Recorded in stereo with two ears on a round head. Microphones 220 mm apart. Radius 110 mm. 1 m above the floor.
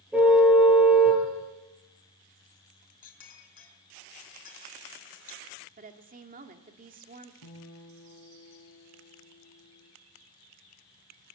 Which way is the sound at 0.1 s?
5° right (ahead or behind).